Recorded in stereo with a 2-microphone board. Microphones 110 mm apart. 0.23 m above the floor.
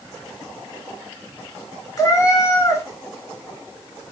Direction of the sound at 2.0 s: 30° left (ahead or behind).